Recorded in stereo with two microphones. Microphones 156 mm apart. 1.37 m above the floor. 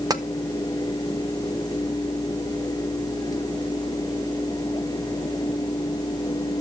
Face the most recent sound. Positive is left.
turn(degrees=-25)  # may be behind; listen again after turning